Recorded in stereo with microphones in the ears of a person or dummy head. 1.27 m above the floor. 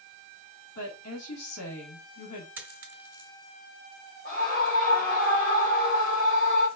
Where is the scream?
40° left (ahead or behind), 2 m.